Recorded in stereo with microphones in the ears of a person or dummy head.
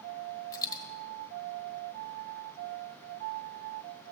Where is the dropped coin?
20° left (ahead or behind), 1.2 m.